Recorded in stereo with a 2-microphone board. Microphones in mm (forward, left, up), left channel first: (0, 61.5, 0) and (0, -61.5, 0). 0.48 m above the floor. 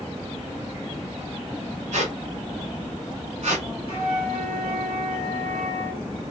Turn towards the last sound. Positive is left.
turn(degrees=55)  # may be behind; listen again after turning